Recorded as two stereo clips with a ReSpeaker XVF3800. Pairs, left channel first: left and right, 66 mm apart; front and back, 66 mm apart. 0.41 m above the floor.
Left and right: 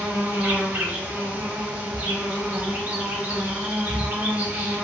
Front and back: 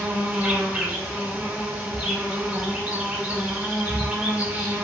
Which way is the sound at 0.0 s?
125° right.